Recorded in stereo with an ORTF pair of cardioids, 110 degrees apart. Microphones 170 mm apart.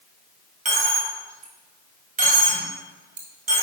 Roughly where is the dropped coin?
Ahead right.